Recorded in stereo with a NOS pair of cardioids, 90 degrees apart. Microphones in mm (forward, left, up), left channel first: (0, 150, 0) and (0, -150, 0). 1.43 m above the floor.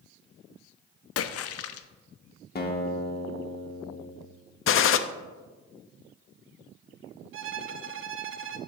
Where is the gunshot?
45° left, 0.5 m.